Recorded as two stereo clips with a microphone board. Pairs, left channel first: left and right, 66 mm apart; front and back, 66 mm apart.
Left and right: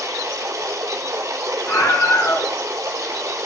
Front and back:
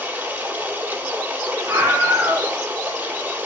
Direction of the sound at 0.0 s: 120° right.